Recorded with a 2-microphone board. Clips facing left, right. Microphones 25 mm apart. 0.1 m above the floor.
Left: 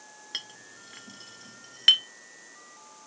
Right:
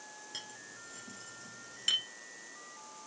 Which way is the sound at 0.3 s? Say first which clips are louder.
Left 9 dB; 45° left (ahead or behind).